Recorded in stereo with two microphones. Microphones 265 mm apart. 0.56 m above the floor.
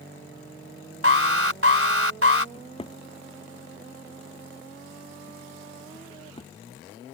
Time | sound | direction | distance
1.0 | an alarm | 55° right (ahead or behind) | ?
2.5 | a drawer | 20° left (ahead or behind) | ?